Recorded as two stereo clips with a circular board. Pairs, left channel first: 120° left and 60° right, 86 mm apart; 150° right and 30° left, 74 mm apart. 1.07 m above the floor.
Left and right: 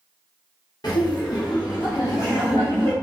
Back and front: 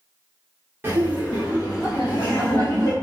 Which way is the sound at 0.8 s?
85° left.